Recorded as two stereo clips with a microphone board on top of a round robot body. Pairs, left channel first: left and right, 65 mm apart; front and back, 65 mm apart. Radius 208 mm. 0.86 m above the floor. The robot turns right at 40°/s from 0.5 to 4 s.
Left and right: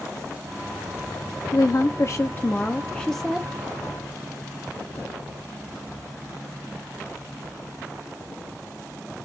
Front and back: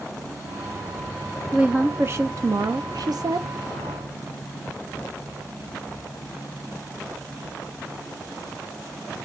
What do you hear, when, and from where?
1.5 s a woman speaking: 110° left, 0.7 m; by 3.5 s 170° right, 0.7 m